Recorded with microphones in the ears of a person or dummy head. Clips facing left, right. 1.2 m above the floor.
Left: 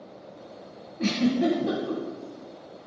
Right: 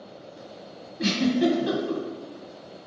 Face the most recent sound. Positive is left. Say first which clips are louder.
# right 1 dB
turn(degrees=-5)  # may be behind; listen again after turning